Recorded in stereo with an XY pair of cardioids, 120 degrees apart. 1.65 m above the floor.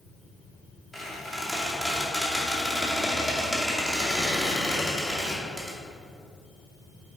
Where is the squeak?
10° right, 2.5 m.